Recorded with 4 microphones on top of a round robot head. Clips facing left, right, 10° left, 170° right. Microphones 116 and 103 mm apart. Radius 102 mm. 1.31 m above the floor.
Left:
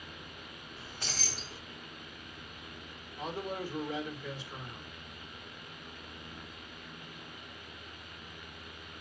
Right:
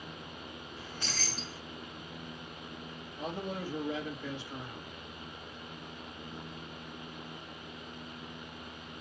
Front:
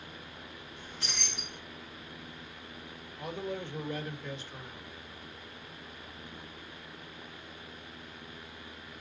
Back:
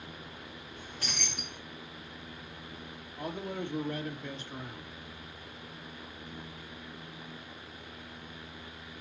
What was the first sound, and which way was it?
Keys jangling, 110° right.